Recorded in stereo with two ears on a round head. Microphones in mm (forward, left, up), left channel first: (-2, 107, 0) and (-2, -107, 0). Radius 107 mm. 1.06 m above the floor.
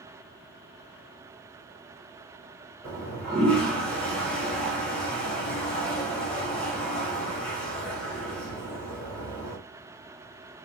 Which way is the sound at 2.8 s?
5° left (ahead or behind).